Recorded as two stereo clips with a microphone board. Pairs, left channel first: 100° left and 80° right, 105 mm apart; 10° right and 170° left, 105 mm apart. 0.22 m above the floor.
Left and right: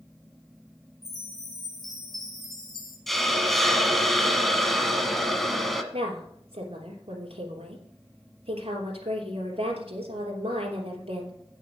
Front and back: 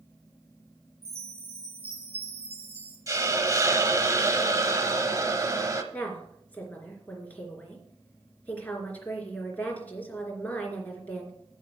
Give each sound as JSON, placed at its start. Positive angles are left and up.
{"t": 1.0, "sound": "a chime", "azimuth_deg": -170, "distance_m": 5.5}
{"t": 3.1, "sound": "a hiss", "azimuth_deg": -175, "distance_m": 1.0}
{"t": 5.9, "sound": "a woman speaking", "azimuth_deg": -85, "distance_m": 3.0}